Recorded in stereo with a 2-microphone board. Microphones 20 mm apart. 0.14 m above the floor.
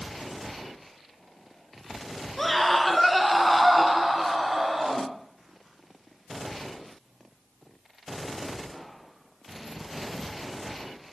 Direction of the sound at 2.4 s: 5° left (ahead or behind).